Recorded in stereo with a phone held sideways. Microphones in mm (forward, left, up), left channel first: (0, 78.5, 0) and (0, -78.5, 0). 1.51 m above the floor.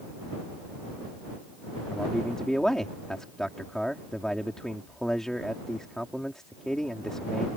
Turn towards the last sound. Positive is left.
turn(degrees=5)  # may be behind; listen again after turning